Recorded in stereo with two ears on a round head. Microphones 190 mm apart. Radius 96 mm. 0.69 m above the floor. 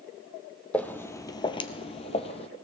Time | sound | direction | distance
0.7 | footsteps | 5° left (ahead or behind) | 0.9 m